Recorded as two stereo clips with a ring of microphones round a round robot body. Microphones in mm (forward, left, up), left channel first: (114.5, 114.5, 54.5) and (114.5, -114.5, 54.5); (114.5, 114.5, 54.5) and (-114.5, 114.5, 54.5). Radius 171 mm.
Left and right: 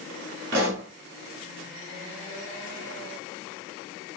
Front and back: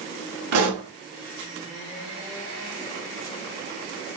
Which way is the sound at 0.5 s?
145° right.